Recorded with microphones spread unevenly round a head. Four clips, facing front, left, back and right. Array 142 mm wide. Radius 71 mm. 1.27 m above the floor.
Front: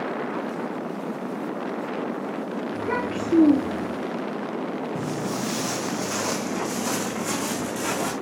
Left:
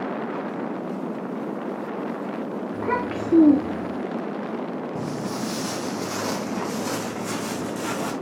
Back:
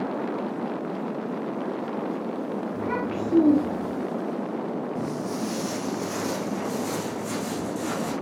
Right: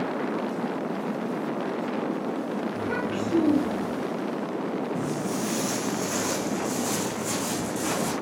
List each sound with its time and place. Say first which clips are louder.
2.7 s a child speaking: left 3 dB, front 2 dB; 65° left, 1.6 m
5.0 s footsteps: even, front 1 dB; 40° left, 2.5 m; by 8.1 s 20° left, 5 m